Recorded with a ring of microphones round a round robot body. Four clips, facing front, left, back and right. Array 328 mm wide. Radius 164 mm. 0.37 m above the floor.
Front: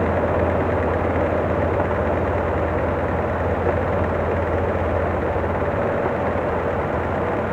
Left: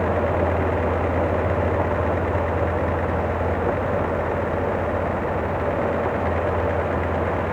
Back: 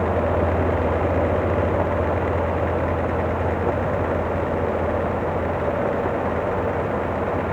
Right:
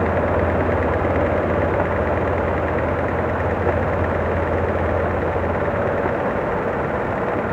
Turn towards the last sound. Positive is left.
No sound to turn to.